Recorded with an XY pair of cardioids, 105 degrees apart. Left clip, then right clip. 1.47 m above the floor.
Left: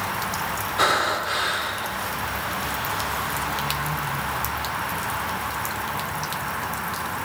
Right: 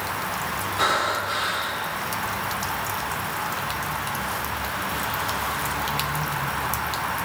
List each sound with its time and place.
0.8 s breathing: 30° left, 1.9 m